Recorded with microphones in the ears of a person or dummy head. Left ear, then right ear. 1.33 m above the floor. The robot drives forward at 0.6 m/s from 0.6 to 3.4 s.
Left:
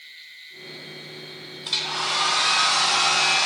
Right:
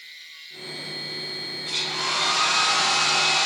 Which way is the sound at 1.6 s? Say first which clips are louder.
Left 2 dB; 50° left (ahead or behind).